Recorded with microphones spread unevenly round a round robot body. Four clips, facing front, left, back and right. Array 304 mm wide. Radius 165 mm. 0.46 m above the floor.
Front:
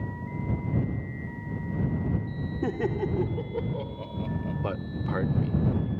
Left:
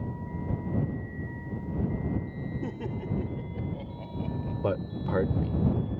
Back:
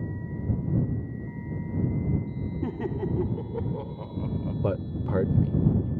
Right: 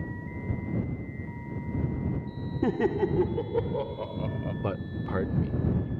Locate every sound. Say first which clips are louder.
2.6 s laughter: right 14 dB, front 3 dB; 75° right; by 4.5 s 115° right
4.6 s a man speaking: left 3 dB, back 3 dB; 170° left